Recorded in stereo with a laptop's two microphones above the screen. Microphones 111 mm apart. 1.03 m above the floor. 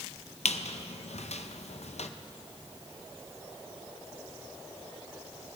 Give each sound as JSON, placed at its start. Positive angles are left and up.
{"t": 0.5, "sound": "a squeak", "side_deg": 75, "distance_m": 0.6}